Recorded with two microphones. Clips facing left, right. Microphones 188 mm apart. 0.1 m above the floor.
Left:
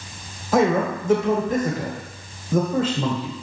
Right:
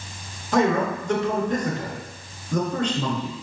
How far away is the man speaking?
About 1.2 m.